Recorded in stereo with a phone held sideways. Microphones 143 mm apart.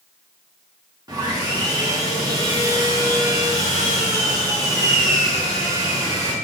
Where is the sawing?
25° right (ahead or behind), 1.0 m.